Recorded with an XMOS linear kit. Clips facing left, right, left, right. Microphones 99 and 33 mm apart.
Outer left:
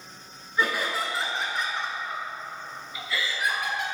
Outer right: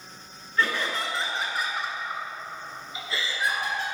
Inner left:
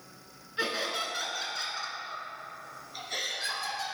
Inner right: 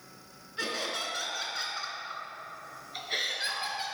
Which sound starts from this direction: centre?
Laughter, at 0.6 s.